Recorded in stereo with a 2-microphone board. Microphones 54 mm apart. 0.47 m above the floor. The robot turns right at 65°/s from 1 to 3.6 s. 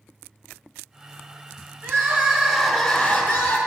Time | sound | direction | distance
1.8 | crying | 60° right | 3 m